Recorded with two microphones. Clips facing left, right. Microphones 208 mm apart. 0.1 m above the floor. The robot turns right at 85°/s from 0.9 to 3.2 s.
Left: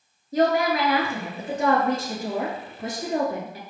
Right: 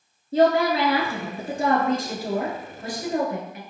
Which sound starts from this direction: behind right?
A woman speaking, at 0.3 s.